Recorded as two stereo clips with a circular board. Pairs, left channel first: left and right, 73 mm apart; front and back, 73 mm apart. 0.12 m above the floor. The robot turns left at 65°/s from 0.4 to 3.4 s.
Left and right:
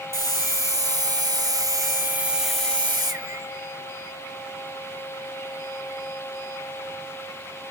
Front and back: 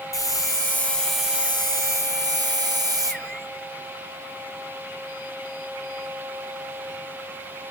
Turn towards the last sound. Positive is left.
turn(degrees=125)